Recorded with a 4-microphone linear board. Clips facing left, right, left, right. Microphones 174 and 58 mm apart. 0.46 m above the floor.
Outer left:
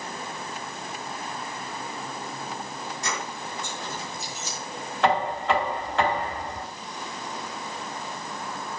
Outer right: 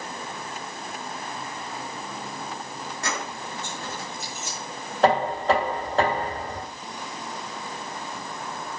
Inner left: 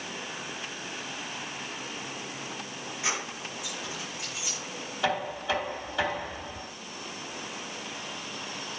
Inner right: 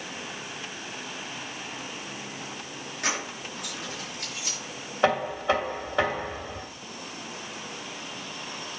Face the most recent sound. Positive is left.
turn(degrees=-40)  # may be behind; listen again after turning